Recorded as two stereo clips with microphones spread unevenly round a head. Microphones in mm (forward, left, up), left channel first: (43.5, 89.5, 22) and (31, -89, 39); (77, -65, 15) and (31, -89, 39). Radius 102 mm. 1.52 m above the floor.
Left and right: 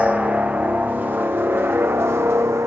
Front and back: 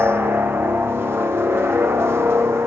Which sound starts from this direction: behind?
A helicopter, at 0.0 s.